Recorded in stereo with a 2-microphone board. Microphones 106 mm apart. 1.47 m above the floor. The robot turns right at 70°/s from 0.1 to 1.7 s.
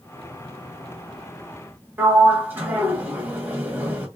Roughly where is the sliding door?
Centre.